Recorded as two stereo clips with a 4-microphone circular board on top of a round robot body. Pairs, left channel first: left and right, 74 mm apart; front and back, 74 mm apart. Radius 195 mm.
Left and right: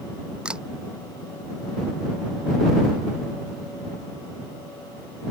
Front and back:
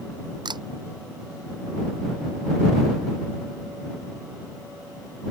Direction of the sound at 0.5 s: 170° right.